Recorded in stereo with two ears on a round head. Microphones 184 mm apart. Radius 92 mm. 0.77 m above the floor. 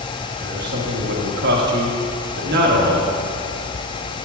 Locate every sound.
0.4 s a man speaking: 50° right (ahead or behind), 1.3 m